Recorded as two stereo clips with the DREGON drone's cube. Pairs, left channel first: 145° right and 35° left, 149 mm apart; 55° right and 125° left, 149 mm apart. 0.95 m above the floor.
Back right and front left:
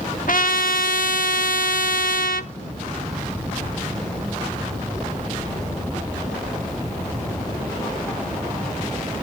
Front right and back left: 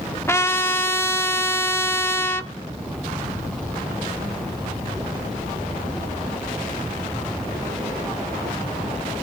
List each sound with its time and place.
0.3 s a trumpet: 130° right, 1.0 m